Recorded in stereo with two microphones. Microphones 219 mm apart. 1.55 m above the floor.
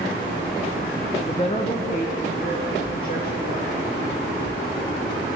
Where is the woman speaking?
20° left (ahead or behind), 0.7 m; by 3.7 s 45° left (ahead or behind), 2.5 m.